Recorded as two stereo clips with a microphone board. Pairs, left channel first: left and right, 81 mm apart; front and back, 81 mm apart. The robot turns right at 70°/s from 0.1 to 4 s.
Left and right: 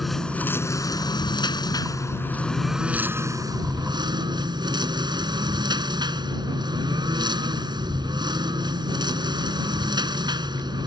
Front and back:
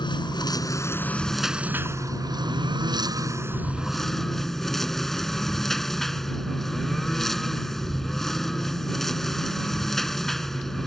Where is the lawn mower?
Straight ahead; by 10.9 s 85° right.